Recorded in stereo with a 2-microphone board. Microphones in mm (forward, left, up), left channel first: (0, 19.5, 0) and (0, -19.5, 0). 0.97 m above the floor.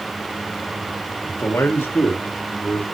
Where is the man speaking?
70° left (ahead or behind), 1.8 m; by 2.8 s 65° left (ahead or behind), 3 m.